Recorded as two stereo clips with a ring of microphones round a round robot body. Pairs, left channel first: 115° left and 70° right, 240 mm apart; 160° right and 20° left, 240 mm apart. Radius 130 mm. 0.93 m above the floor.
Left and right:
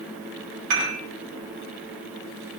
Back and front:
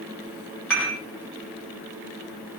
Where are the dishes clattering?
75° right, 5 m.